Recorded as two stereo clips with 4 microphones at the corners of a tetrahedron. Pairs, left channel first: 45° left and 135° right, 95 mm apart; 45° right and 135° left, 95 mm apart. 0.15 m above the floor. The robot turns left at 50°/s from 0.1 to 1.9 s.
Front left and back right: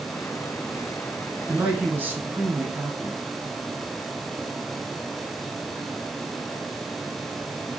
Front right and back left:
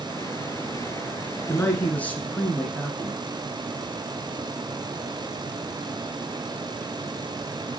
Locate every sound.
1.5 s a man speaking: 70° right, 1.4 m; by 3.2 s 95° right, 1.4 m